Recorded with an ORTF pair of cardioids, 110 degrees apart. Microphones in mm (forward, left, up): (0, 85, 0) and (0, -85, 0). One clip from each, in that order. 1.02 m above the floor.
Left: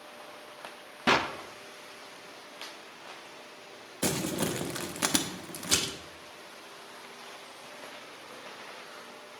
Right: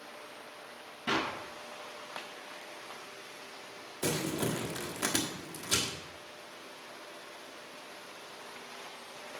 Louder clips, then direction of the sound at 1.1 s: Left 6 dB; 65° left.